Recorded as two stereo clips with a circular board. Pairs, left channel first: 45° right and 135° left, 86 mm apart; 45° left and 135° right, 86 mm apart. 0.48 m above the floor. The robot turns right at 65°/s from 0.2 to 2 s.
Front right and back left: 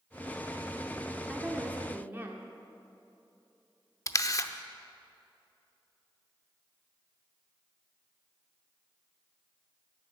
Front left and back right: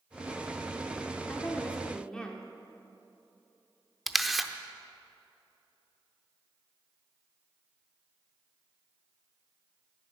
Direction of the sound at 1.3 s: 75° left.